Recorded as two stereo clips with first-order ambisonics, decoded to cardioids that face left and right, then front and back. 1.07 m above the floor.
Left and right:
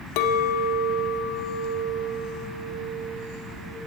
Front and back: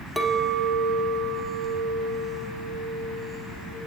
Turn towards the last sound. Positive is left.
turn(degrees=90)